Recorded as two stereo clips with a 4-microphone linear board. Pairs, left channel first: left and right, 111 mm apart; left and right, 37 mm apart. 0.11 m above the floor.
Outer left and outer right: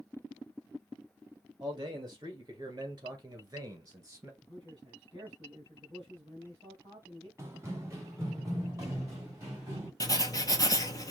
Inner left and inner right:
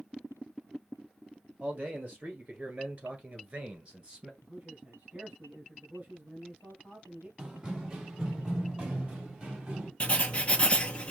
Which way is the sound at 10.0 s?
35° left (ahead or behind).